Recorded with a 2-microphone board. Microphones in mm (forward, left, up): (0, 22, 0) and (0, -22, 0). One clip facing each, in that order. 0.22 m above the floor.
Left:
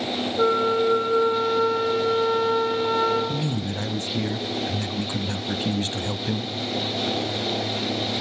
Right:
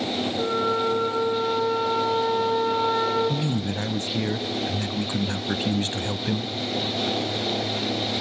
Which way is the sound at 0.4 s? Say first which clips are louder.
Left 5 dB; 35° left (ahead or behind).